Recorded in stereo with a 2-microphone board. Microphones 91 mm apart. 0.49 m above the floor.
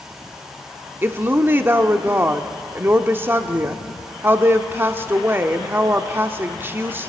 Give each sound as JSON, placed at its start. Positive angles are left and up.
{"t": 1.0, "sound": "a woman speaking", "side_deg": -25, "distance_m": 0.8}